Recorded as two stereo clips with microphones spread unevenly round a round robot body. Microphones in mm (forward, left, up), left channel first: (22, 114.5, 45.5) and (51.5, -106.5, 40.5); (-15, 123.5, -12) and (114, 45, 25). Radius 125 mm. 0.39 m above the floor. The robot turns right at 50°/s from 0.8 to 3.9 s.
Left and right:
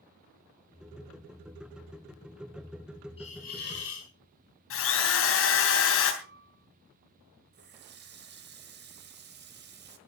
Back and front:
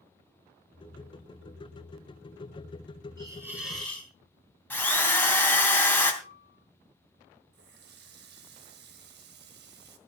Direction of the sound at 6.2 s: 120° right.